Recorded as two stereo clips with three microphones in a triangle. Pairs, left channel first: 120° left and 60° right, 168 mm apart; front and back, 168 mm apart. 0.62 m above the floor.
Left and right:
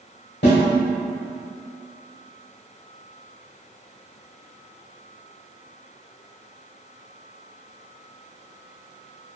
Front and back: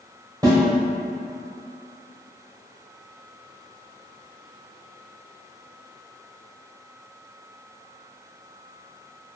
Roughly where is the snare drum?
Left.